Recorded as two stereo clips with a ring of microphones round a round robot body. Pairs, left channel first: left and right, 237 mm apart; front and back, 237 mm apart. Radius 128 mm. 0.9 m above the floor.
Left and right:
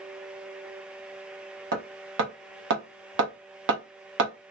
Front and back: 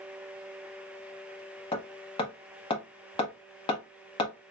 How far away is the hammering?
About 0.9 m.